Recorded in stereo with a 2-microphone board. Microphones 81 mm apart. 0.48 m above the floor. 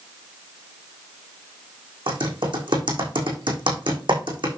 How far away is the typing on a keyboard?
About 4 m.